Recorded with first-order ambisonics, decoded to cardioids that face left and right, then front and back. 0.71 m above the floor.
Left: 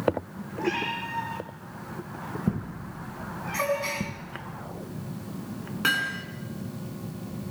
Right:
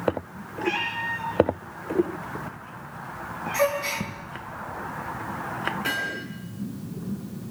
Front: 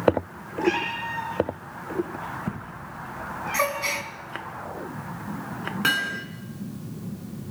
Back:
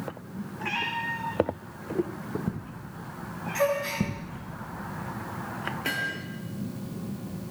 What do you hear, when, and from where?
0.6 s a cat meowing: 20° left, 10 m
3.5 s a gasp: straight ahead, 5.5 m
5.8 s hammering: 30° left, 4 m